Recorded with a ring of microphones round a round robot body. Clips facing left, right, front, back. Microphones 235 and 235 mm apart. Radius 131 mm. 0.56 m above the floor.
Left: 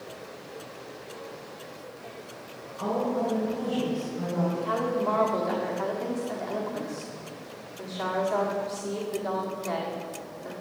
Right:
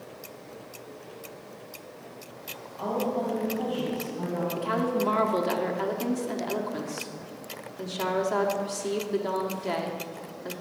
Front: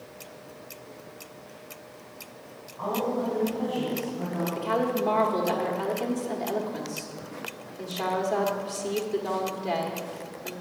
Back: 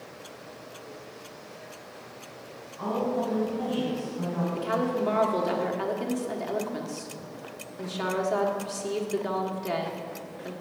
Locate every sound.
2.8 s a woman speaking: 150° left, 3 m; by 4.5 s 140° left, 3.5 m
4.6 s a woman speaking: 115° right, 1.4 m